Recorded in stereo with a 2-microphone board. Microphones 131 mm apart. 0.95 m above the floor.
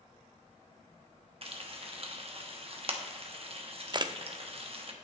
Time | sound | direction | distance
1.4 | frying | 50° right (ahead or behind) | 1.1 m
3.9 | a camera shutter | 35° right (ahead or behind) | 0.5 m